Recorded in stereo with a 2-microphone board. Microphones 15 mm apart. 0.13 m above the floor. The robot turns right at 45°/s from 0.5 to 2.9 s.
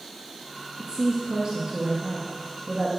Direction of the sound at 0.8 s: 125° right.